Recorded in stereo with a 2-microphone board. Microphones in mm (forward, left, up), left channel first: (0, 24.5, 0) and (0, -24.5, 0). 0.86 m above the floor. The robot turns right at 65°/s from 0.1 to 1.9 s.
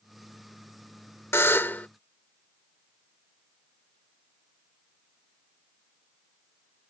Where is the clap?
No clap in this recording.